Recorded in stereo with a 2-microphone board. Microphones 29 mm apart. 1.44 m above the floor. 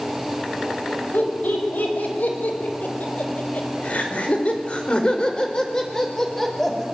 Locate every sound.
1.1 s laughter: 90° left, 7 m; by 6.8 s 10° left (ahead or behind), 5.5 m